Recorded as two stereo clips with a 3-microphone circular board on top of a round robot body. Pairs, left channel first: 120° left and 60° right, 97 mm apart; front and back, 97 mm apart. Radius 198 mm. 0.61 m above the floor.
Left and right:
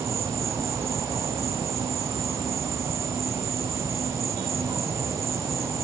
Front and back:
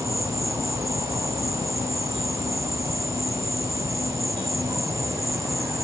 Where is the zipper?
I don't hear a zipper.